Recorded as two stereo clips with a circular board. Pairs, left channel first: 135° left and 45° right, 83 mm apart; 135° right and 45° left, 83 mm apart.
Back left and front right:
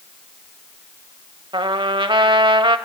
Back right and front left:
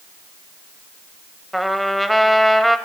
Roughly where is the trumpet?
Ahead right.